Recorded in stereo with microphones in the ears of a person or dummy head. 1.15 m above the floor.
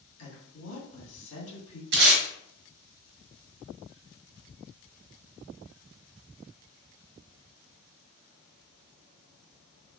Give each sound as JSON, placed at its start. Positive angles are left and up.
{"t": 0.2, "sound": "a woman speaking", "side_deg": 80, "distance_m": 2.0}
{"t": 1.9, "sound": "tape being pulled", "side_deg": -60, "distance_m": 1.3}